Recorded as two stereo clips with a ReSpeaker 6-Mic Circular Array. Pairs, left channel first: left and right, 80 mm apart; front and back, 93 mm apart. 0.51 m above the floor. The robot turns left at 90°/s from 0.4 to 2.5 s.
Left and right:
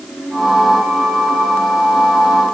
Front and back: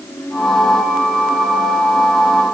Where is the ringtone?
No ringtone in this recording.